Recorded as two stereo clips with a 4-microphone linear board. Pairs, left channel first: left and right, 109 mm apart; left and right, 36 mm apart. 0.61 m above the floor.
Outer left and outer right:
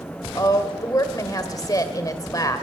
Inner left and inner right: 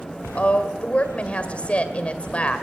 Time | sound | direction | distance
0.3 | a woman speaking | 35° left (ahead or behind) | 2 m